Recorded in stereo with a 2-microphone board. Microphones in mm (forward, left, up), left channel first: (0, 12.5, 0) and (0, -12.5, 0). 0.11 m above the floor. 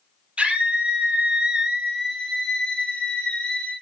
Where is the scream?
55° right (ahead or behind), 3 m; by 3.7 s 40° left (ahead or behind), 3 m.